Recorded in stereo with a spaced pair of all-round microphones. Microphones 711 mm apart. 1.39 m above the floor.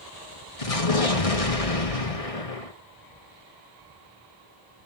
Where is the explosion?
50° left (ahead or behind), 1.7 m.